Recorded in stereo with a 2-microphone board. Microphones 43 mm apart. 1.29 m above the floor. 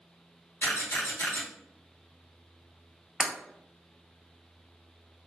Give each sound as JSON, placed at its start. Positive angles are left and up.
{"t": 0.6, "sound": "a camera shutter", "side_deg": 70, "distance_m": 1.4}
{"t": 3.2, "sound": "breaking glass", "side_deg": -20, "distance_m": 0.9}